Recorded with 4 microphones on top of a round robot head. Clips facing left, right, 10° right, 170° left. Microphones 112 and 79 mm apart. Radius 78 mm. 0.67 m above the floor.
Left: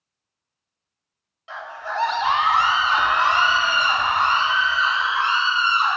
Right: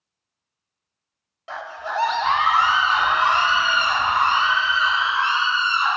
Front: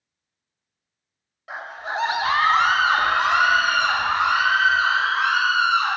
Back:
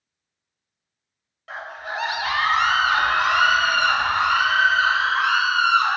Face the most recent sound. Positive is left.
turn(degrees=60)